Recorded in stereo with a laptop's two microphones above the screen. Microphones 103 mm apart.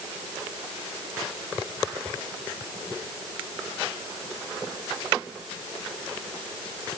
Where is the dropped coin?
No dropped coin in this recording.